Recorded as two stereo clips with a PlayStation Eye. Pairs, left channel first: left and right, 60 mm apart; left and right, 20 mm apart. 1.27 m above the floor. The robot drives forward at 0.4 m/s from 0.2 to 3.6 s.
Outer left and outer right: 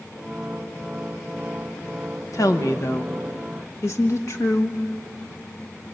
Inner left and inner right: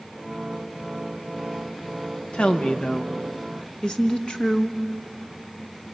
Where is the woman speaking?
70° left (ahead or behind), 1.4 m; by 4.8 s 55° left (ahead or behind), 1.6 m.